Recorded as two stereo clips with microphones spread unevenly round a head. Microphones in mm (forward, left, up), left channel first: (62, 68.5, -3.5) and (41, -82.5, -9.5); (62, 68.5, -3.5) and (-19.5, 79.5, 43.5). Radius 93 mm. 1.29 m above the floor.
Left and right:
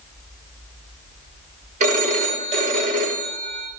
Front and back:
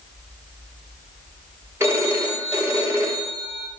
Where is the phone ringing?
145° right, 1.1 m.